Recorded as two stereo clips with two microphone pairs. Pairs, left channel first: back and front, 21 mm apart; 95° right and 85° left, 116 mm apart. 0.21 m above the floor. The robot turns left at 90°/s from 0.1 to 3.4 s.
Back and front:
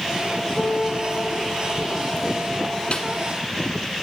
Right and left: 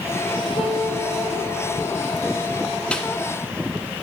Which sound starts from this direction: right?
A piano, at 0.6 s.